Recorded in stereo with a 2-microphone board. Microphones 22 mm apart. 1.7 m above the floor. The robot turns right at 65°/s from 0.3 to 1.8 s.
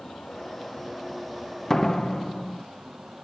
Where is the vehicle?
130° left; by 3.2 s 135° right.